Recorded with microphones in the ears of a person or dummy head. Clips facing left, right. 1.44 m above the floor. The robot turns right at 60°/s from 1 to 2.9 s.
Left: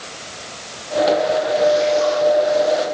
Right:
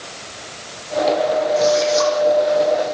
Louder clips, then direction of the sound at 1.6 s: Left 2 dB; 115° right.